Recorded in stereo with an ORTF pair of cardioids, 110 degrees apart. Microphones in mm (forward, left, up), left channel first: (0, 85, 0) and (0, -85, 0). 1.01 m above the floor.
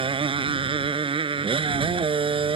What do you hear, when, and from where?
0.0 s a motorcycle: 30° right